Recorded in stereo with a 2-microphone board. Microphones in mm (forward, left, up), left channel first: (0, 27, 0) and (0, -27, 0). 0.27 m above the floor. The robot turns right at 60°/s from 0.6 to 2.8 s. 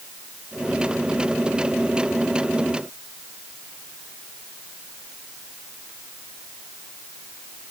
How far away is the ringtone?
I don't hear a ringtone.